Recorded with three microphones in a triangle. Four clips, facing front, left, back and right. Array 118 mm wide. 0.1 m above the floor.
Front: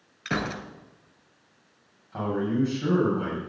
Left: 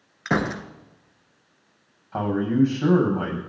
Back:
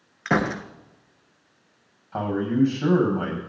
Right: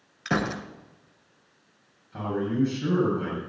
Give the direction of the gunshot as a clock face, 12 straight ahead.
7 o'clock.